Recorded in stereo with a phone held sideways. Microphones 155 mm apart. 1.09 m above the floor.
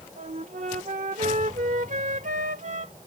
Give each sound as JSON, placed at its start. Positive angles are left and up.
{"t": 0.2, "sound": "a flute", "side_deg": -60}